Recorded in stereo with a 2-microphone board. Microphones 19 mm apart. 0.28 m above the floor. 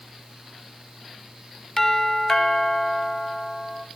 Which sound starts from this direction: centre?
A doorbell, at 1.8 s.